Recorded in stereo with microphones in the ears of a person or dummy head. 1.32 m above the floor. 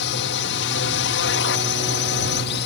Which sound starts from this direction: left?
A drone, at 0.0 s.